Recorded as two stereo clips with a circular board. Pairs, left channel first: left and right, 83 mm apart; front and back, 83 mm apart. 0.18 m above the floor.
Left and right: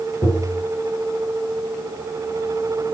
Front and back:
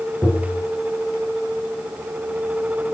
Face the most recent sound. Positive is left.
turn(degrees=70)